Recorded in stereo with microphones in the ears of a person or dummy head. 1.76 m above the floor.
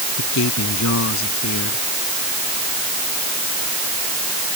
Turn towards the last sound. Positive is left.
turn(degrees=65)  # may be behind; listen again after turning